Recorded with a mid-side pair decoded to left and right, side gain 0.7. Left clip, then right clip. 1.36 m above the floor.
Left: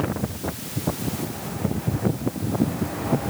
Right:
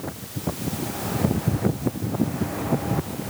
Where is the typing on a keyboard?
I don't hear typing on a keyboard.